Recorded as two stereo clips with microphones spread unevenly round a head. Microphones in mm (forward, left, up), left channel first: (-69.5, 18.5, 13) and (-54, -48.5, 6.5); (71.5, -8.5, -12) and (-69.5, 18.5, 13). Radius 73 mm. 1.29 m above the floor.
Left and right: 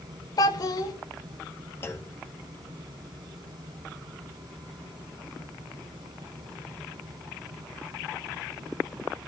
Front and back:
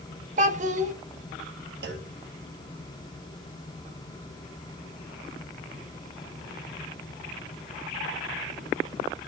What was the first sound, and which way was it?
A child speaking, 130° left.